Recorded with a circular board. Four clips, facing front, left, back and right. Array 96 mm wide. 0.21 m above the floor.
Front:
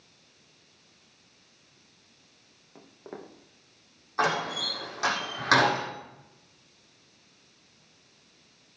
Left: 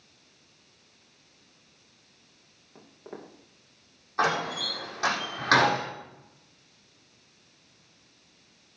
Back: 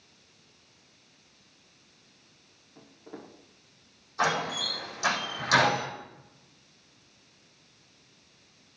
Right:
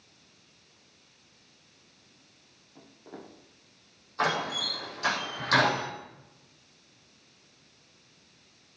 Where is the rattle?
I don't hear a rattle.